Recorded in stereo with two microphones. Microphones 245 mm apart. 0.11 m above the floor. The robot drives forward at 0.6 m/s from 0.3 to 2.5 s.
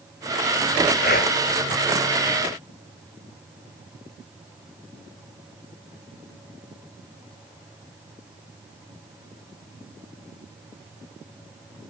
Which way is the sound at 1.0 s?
40° left (ahead or behind).